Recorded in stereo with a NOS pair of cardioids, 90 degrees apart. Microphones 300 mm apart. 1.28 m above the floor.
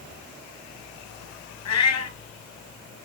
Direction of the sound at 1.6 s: 65° left.